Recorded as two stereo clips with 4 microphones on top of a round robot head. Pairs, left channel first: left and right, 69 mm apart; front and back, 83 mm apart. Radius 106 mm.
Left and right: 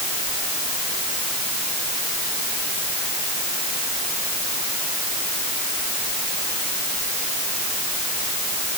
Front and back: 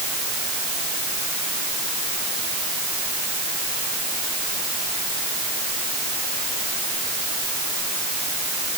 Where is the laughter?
I don't hear laughter.